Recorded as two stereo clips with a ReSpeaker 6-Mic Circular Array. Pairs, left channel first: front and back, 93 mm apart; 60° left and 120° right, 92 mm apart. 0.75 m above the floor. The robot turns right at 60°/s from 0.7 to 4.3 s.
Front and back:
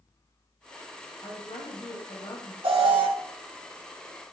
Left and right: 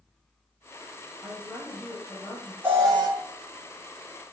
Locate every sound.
1.2 s a woman speaking: 55° right, 3 m; by 2.5 s 25° left, 3 m
2.6 s an alarm: 170° left, 3.5 m; by 3.1 s 165° right, 3.5 m